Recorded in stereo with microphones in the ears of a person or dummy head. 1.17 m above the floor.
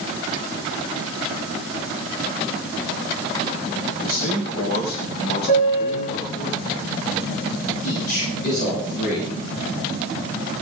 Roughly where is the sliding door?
I don't hear a sliding door.